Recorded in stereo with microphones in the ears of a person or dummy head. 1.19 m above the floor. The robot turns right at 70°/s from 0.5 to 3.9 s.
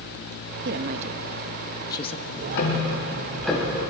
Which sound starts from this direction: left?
Ticking, at 2.3 s.